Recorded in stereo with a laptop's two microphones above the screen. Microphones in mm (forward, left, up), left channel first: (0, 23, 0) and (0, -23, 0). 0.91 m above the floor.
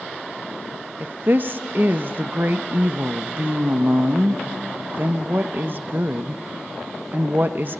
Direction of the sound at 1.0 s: 45° right (ahead or behind).